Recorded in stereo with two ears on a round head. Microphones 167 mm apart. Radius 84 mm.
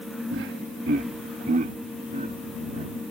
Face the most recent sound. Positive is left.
turn(degrees=-35)  # may be behind; listen again after turning